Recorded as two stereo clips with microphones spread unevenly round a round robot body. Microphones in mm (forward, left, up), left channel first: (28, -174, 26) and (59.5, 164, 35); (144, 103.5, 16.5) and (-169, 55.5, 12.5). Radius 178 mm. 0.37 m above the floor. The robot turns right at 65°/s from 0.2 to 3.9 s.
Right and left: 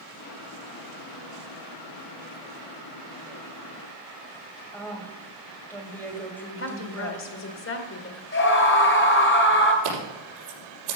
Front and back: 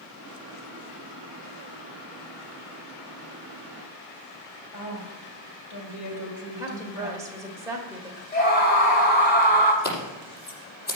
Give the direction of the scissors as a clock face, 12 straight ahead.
10 o'clock.